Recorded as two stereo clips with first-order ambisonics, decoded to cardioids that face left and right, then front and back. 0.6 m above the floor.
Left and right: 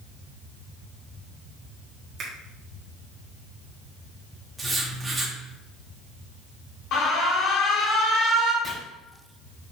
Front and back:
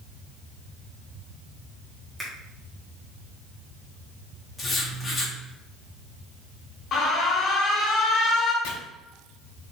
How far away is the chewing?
No chewing in this recording.